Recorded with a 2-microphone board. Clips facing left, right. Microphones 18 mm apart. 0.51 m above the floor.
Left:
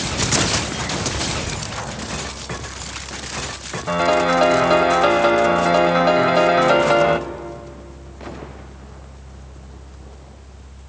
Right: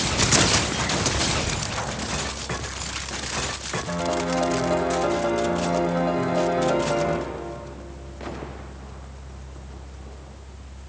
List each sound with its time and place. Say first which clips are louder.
3.9 s a piano: left 10 dB; 80° left, 1.0 m